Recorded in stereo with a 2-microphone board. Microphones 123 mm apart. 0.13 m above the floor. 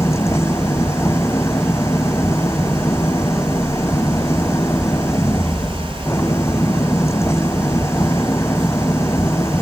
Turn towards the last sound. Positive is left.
turn(degrees=25)  # may be behind; listen again after turning